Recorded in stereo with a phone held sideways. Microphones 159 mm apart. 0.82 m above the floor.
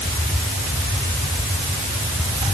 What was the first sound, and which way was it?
Only background noise.